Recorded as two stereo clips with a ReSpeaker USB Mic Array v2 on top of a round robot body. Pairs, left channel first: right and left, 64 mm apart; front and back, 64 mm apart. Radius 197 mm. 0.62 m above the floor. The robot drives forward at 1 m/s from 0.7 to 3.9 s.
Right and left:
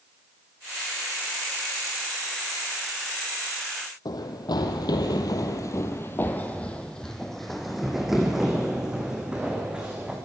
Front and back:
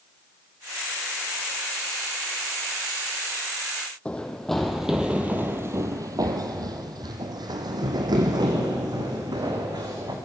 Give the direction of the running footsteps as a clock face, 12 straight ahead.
2 o'clock.